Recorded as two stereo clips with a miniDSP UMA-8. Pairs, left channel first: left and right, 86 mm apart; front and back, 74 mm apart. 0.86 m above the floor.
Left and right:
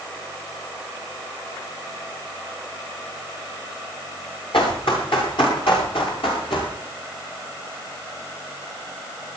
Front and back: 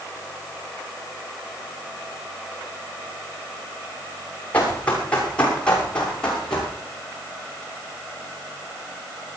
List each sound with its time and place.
4.5 s running footsteps: 70° left, 6.5 m; by 6.7 s 80° left, 9 m